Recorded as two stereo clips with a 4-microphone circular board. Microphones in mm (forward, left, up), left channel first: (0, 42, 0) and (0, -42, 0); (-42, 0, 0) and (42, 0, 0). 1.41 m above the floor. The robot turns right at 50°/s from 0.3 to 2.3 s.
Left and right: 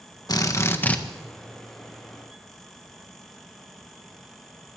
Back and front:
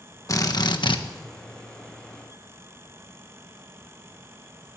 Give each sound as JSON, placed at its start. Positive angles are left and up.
{"t": 0.3, "sound": "a drill", "azimuth_deg": 130, "distance_m": 1.4}